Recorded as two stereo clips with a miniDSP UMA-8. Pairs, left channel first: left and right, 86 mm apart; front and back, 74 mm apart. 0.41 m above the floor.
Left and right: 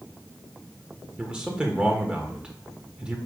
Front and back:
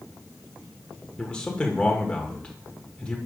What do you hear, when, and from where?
1.2 s a man speaking: 40° right, 1.3 m